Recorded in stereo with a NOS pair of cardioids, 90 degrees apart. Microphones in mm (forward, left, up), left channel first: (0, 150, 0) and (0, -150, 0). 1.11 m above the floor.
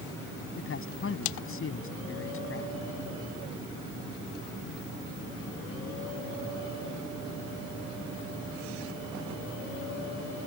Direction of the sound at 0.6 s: 45° left.